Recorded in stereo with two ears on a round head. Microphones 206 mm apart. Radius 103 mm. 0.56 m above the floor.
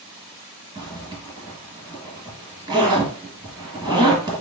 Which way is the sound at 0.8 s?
20° right (ahead or behind).